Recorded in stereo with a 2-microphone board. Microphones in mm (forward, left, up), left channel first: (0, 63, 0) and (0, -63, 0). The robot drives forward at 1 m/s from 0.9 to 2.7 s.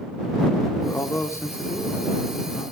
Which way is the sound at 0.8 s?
20° left (ahead or behind).